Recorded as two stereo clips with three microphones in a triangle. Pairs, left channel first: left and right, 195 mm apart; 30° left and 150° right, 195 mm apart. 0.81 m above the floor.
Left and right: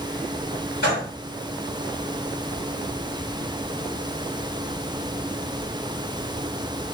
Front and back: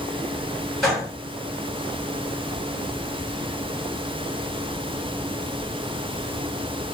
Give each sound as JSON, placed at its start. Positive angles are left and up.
{"t": 0.8, "sound": "a gunshot", "azimuth_deg": 120, "distance_m": 1.4}